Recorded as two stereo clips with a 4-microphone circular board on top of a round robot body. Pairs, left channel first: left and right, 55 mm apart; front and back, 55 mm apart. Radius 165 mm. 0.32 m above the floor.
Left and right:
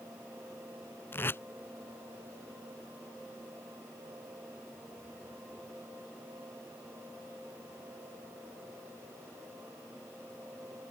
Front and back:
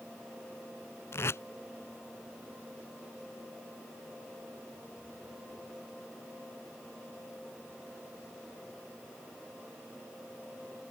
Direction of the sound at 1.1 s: 40° left.